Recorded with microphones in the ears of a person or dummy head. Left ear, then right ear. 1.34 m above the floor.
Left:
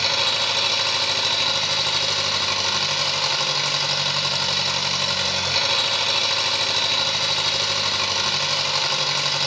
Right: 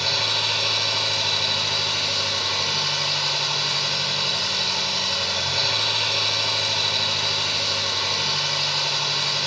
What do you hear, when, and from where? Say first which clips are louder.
0.0 s an engine running: left 1 dB; 50° left (ahead or behind), 1.0 m